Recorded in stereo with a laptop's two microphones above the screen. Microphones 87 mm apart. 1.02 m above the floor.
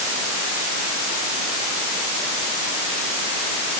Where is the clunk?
I don't hear a clunk.